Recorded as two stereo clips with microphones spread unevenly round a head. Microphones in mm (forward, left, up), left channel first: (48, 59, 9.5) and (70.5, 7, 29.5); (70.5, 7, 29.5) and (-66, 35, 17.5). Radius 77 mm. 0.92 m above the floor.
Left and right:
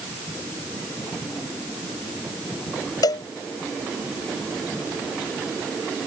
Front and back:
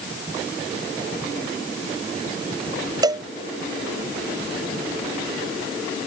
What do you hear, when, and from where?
3.0 s a cowbell: 105° left